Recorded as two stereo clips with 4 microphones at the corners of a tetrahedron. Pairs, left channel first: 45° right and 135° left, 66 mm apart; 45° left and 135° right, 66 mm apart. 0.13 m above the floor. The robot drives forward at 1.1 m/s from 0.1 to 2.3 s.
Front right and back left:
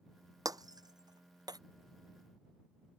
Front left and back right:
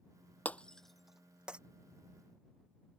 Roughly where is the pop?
I don't hear a pop.